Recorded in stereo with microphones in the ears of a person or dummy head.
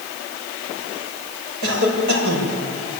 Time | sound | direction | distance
1.6 | a cough | 70° right (ahead or behind) | 7 m